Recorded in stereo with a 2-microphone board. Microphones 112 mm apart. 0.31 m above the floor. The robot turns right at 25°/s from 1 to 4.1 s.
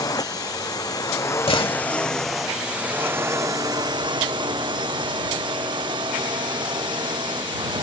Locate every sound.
0.0 s a drone: 145° left; by 7.8 s 135° right
1.5 s a door slam: 50° left (ahead or behind); by 1.9 s 55° left (ahead or behind)